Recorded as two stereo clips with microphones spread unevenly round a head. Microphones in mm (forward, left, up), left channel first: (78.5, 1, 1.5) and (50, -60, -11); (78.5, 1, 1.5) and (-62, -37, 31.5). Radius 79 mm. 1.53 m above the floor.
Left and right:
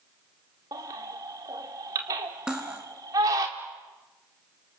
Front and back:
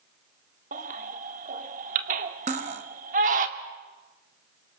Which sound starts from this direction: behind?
A baby crying, at 0.7 s.